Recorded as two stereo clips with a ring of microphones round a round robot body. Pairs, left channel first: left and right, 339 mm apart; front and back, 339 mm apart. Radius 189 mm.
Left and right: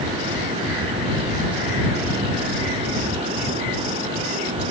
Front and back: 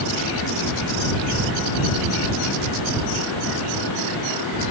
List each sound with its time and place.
Only background noise.